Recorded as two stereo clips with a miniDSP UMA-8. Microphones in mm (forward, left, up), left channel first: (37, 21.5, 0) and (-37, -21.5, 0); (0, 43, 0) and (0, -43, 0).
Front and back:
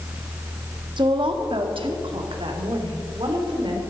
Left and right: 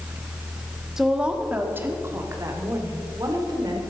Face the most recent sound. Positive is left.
turn(degrees=-130)